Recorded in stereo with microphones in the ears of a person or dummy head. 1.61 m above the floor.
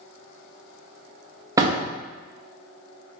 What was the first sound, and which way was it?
A door slam, 25° right (ahead or behind).